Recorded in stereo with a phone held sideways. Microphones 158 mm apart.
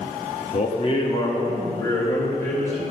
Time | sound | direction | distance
0.5 | a man speaking | 50° left (ahead or behind) | 0.9 m